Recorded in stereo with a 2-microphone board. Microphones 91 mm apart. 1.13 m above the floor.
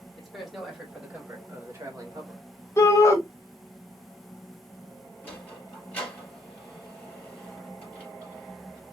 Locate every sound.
0.2 s a man speaking: centre (ahead or behind), 2.5 m; by 2.4 s 45° right (ahead or behind), 1.7 m
2.8 s a shout: 30° left (ahead or behind), 1.2 m
5.2 s a sliding door: 15° left (ahead or behind), 3.5 m